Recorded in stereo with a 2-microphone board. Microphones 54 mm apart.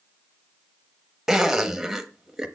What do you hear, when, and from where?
1.3 s a zipper: 10° right (ahead or behind), 0.8 m